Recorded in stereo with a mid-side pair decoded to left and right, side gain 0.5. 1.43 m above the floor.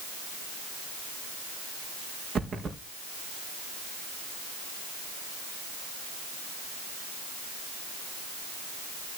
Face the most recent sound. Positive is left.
turn(degrees=-40)